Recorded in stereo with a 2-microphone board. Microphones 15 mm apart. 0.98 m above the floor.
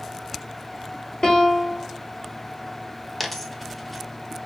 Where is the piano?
70° left (ahead or behind), 2 m.